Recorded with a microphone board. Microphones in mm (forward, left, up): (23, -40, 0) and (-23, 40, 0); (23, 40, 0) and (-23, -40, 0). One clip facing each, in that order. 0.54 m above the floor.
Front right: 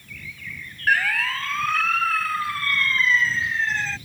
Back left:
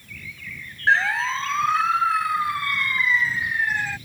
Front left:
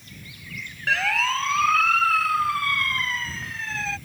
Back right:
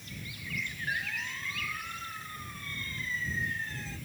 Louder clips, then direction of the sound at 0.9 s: Back left 2 dB, front left 16 dB; 55° left.